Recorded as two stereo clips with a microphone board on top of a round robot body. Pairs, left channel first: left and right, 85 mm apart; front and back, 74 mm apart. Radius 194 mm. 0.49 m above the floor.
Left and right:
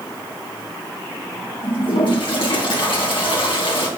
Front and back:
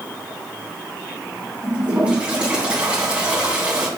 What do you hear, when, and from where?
1.6 s a toilet flushing: 105° left, 3.5 m